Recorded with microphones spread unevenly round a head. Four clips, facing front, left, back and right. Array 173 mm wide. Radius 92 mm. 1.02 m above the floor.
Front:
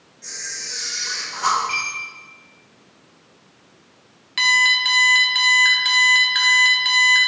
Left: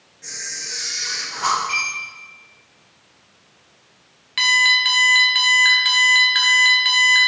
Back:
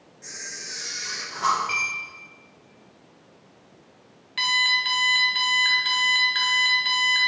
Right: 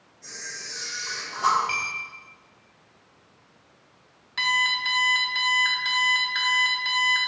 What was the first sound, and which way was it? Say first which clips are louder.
A camera shutter: left 4 dB, front 3 dB; 120° left.